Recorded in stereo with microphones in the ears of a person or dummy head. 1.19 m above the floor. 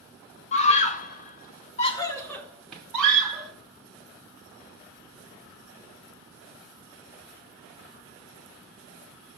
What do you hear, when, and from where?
0.5 s a scream: 40° left (ahead or behind), 1.0 m; by 3.5 s 5° right (ahead or behind), 1.5 m